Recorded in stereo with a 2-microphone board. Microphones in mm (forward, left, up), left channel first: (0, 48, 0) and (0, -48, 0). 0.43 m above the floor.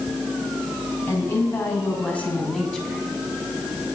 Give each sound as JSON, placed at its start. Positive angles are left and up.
{"t": 1.1, "sound": "a woman speaking", "side_deg": 25, "distance_m": 3.5}